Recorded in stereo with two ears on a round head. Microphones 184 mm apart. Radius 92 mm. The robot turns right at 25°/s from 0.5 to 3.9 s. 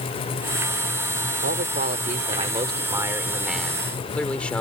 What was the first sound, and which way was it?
A man speaking, 55° right.